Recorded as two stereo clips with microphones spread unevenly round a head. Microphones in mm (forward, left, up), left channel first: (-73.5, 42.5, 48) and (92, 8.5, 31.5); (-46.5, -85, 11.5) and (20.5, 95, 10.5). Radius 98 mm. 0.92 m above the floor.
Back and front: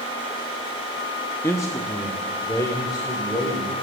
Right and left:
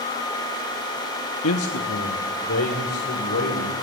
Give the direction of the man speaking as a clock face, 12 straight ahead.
4 o'clock.